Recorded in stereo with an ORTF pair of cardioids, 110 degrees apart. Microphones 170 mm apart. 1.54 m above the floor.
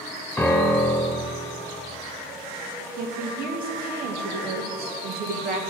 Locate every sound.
0.4 s a piano: 10° left, 1.8 m
3.0 s a woman speaking: 65° right, 1.7 m